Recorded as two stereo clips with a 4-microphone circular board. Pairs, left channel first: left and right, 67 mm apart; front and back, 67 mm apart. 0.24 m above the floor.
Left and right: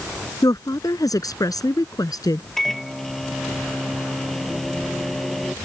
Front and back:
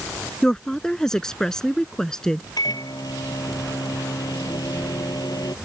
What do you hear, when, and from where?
0.4 s a woman speaking: 80° left
2.6 s a microwave: straight ahead